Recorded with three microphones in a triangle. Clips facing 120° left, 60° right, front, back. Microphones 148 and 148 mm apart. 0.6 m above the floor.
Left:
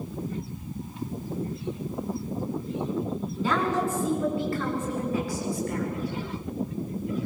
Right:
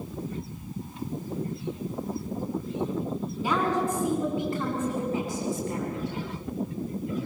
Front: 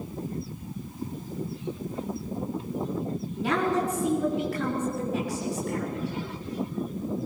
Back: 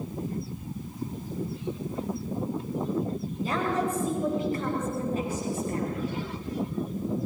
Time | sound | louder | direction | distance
3.4 | a woman speaking | even, front 3 dB | 10° left | 7.5 m